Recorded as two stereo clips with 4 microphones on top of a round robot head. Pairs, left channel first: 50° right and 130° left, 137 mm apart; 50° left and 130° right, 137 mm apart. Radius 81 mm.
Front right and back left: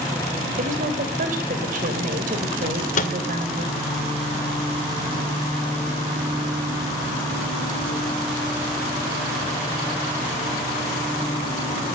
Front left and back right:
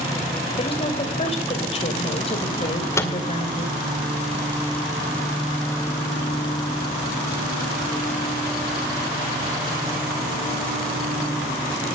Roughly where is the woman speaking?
Left.